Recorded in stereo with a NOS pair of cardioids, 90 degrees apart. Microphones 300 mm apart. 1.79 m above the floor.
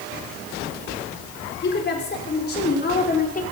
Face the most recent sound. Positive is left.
turn(degrees=30)